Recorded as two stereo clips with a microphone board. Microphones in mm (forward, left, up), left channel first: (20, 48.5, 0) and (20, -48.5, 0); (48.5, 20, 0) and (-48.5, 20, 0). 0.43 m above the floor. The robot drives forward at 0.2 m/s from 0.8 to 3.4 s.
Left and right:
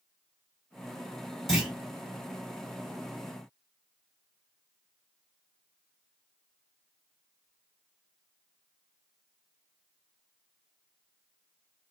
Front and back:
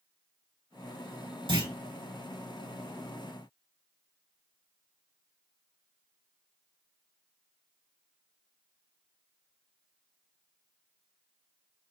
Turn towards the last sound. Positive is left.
turn(degrees=-175)